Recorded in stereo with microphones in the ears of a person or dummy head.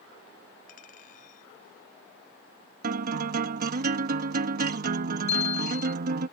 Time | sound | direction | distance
0.7 | a clink | 50° left (ahead or behind) | ?
2.8 | a guitar | 50° right (ahead or behind) | ?
5.3 | a bicycle bell | 35° left (ahead or behind) | ?